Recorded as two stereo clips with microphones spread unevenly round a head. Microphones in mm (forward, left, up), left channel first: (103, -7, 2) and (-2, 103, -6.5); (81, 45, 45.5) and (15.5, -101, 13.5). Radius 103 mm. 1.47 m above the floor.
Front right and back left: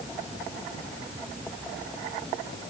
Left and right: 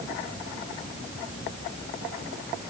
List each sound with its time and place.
Only background noise.